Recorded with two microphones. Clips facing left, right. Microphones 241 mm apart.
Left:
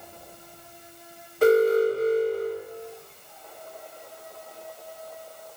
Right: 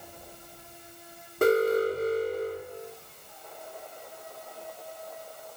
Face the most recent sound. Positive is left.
turn(degrees=-50)  # may be behind; listen again after turning